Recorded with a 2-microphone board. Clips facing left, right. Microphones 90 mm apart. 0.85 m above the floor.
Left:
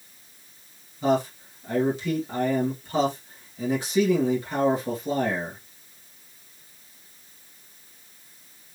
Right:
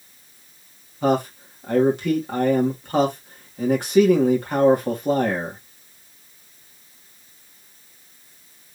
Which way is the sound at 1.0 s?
55° right (ahead or behind).